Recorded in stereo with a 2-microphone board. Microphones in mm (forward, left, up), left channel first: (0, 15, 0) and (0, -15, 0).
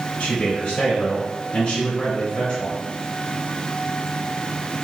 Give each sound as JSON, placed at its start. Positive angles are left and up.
{"t": 0.2, "sound": "a man speaking", "side_deg": 45, "distance_m": 1.5}